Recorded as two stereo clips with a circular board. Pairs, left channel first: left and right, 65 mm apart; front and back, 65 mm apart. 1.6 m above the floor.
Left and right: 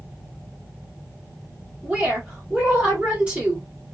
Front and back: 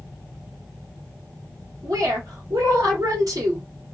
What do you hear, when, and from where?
1.8 s a woman speaking: 165° right, 1.3 m